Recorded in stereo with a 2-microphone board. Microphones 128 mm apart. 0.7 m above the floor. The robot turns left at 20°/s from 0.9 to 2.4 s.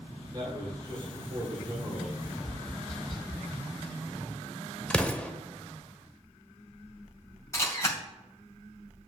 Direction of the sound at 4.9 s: 10° left (ahead or behind).